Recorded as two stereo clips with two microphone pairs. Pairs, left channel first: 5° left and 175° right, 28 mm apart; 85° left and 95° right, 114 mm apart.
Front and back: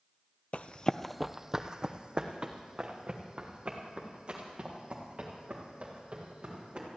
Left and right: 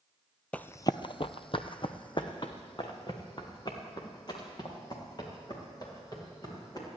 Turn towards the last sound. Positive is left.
turn(degrees=140)